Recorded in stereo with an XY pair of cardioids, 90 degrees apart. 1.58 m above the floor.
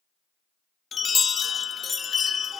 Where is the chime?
45° left, 0.5 m.